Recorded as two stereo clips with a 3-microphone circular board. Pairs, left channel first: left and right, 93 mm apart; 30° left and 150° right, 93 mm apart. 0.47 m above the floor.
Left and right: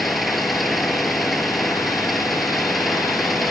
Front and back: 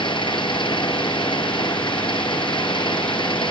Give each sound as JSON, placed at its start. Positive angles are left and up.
{"t": 0.0, "sound": "an engine running", "azimuth_deg": 0}